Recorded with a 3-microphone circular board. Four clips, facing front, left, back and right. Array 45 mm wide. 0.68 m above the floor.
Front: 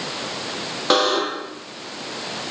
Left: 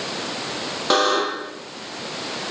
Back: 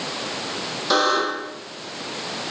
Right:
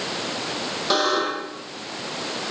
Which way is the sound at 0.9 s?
25° left.